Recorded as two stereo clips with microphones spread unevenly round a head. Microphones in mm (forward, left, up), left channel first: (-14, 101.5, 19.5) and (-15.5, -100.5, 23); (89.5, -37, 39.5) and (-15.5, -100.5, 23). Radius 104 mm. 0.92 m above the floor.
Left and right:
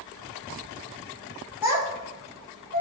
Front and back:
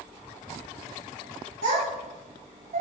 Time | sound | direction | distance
1.6 | a child speaking | 170° right | 1.5 m